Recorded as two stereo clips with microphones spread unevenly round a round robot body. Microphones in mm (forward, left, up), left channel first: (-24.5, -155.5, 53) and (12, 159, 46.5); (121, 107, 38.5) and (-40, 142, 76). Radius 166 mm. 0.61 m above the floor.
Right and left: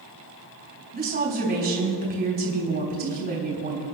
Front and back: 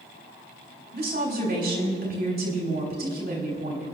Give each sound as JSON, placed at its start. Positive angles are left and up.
{"t": 0.9, "sound": "a woman speaking", "azimuth_deg": 145, "distance_m": 4.0}